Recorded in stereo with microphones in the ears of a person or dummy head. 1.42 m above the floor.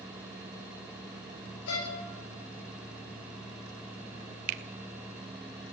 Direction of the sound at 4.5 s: 50° right (ahead or behind).